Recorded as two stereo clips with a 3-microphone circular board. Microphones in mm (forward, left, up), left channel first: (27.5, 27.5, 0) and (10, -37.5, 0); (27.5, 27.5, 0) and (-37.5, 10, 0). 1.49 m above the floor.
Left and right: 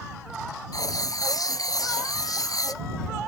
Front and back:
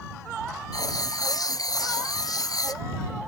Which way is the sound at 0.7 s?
45° left.